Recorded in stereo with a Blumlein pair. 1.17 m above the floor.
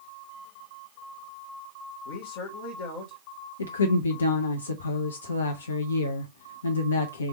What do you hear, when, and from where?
2.0 s a man speaking: 55° left, 1.7 m
3.6 s a woman speaking: 70° left, 0.8 m